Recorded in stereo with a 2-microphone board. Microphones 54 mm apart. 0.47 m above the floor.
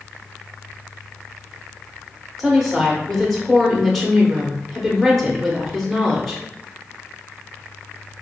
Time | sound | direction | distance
2.4 | a woman speaking | centre (ahead or behind) | 0.9 m